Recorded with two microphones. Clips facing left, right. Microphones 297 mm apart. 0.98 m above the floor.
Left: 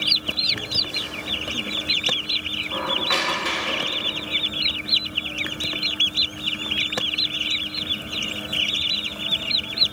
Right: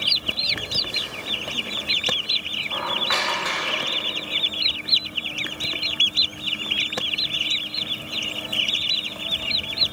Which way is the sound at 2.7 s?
35° left (ahead or behind).